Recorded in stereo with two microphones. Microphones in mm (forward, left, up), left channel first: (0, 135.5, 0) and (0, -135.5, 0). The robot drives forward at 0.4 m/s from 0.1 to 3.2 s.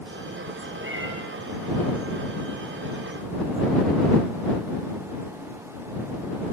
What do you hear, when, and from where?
0.8 s a cat meowing: 45° right (ahead or behind), 5 m; by 1.1 s 50° right (ahead or behind), 5 m